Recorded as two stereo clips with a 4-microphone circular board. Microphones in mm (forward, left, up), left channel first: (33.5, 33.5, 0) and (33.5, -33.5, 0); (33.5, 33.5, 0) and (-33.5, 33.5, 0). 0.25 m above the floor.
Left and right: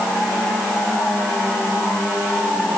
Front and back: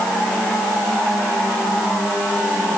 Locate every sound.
Only background noise.